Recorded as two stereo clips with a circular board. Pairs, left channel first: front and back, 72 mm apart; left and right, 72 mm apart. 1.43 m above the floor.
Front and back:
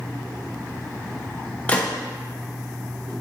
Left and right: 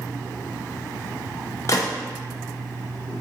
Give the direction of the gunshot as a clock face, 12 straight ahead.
10 o'clock.